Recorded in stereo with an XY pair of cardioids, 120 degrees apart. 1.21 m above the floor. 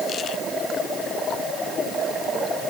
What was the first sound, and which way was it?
Only background noise.